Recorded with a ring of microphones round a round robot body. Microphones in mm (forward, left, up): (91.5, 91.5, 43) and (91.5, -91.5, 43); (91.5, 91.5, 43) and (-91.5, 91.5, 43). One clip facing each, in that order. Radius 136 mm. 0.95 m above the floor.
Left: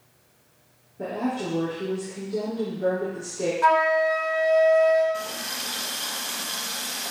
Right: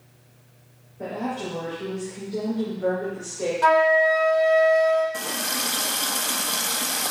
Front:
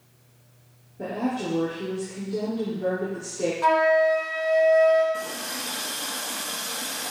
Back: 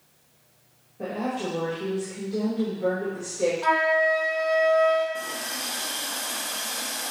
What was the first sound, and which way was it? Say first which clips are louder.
A woman speaking: left 2 dB, front 2 dB; 40° left.